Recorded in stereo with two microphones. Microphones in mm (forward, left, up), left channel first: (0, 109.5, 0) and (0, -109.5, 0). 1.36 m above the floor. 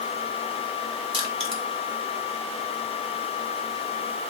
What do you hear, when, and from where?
1.1 s crushing: 25° right (ahead or behind), 3.5 m